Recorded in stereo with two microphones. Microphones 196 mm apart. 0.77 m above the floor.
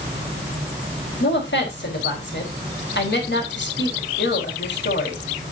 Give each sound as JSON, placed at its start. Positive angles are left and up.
{"t": 1.2, "sound": "a woman speaking", "side_deg": 60, "distance_m": 5.0}